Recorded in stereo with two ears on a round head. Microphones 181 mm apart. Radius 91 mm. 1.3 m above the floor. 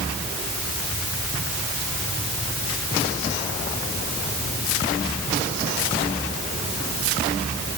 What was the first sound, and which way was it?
Only background noise.